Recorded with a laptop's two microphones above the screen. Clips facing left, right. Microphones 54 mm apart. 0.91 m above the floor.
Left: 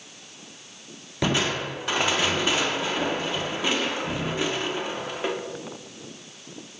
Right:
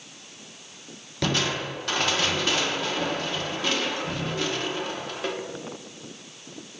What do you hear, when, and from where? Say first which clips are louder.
1.2 s crushing: left 2 dB; 15° left (ahead or behind), 0.6 m